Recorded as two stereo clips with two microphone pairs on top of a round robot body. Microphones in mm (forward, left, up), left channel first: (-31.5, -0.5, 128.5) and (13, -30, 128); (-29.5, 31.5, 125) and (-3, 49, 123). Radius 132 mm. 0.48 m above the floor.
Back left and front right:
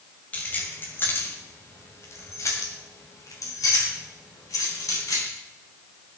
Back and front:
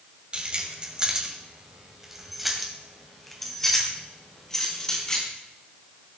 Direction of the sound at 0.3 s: 85° left.